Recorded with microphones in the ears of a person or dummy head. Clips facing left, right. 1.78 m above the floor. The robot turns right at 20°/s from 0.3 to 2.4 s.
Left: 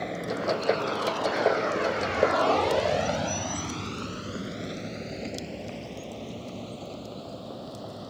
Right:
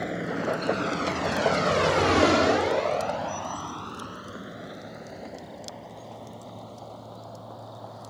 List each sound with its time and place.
0.0 s a vehicle: centre (ahead or behind); by 8.1 s 30° left (ahead or behind)